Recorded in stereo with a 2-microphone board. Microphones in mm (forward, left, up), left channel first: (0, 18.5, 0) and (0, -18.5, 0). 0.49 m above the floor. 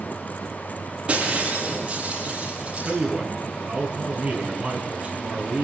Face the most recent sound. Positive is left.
turn(degrees=-30)  # may be behind; listen again after turning